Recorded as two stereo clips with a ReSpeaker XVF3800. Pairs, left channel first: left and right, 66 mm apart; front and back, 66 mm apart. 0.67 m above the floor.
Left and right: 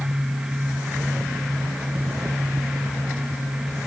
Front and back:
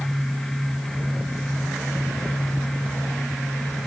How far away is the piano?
I don't hear a piano.